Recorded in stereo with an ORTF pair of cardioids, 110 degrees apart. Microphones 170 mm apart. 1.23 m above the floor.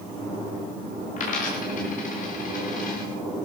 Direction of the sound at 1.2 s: 55° left.